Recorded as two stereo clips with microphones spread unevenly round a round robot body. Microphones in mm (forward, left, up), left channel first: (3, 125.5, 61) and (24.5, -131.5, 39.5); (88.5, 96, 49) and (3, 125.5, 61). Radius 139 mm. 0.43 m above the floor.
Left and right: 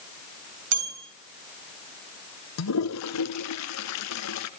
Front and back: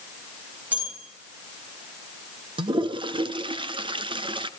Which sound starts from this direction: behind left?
A toilet flushing, at 2.6 s.